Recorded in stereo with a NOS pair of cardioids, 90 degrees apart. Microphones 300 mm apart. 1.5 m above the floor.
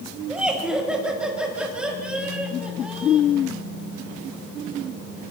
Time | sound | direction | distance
0.3 | laughter | 5° right | 9 m